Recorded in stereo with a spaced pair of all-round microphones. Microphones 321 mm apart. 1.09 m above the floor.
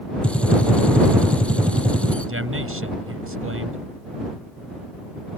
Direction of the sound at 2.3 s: 40° right (ahead or behind).